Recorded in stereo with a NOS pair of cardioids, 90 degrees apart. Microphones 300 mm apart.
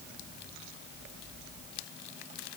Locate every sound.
Only background noise.